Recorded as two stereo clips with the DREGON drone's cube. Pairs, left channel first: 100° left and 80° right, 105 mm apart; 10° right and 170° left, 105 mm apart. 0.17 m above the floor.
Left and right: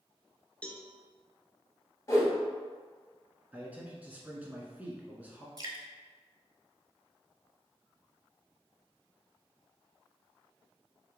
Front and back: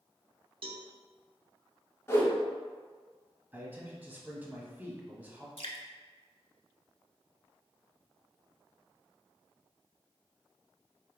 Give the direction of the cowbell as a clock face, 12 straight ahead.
6 o'clock.